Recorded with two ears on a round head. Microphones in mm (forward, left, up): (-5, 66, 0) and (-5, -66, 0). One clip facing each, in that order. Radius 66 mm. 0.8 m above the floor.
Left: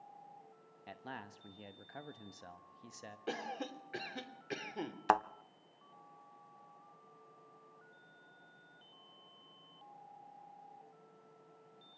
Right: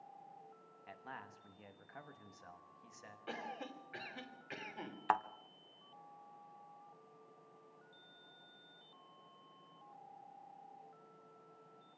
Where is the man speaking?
35° left (ahead or behind), 1.0 m.